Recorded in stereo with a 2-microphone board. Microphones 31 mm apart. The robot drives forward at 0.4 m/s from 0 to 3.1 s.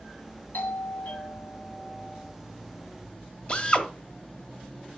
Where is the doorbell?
55° left (ahead or behind), 3 m.